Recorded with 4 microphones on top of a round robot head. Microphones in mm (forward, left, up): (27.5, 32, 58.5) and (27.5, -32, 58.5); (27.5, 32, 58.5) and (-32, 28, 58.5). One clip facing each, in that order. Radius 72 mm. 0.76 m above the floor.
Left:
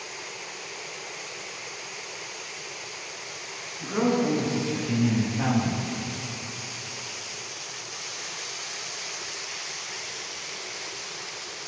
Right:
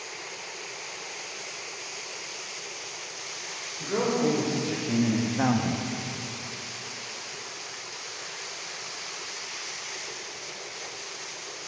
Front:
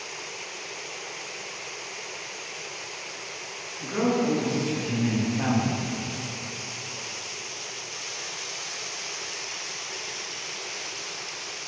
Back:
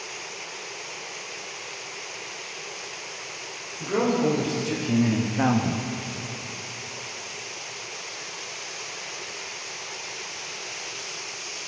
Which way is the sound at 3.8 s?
135° right.